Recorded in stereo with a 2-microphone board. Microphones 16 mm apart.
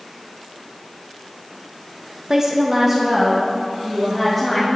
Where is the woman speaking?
35° right (ahead or behind), 0.7 m; by 4.7 s centre (ahead or behind), 2.5 m.